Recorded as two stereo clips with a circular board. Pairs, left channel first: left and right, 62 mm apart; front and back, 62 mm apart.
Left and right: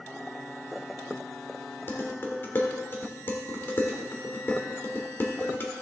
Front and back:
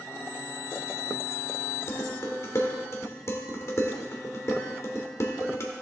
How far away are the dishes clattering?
About 1.6 m.